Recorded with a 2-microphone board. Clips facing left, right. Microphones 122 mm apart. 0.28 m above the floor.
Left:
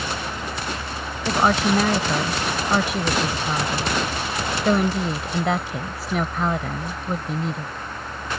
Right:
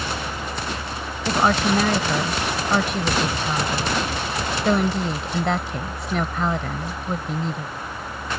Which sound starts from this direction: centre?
A woman speaking, at 1.2 s.